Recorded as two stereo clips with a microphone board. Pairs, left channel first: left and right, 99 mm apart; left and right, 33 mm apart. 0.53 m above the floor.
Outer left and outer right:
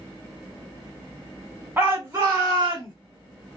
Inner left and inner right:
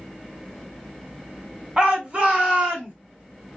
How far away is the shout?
About 1.7 m.